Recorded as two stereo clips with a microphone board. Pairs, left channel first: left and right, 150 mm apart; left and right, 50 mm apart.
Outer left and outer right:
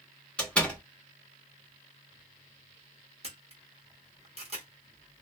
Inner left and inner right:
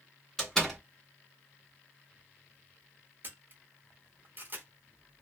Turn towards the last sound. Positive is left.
turn(degrees=-40)  # may be behind; listen again after turning